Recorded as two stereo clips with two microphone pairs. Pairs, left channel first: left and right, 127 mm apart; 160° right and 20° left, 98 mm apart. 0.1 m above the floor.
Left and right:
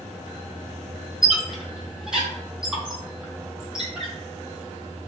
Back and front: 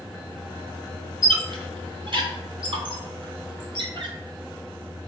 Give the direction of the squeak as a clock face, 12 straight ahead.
12 o'clock.